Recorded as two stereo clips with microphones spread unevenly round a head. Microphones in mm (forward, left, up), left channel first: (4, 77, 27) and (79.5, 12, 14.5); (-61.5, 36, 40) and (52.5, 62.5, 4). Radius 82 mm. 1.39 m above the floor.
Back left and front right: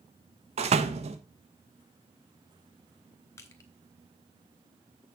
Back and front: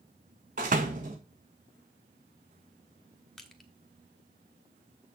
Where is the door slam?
30° right, 1.2 m.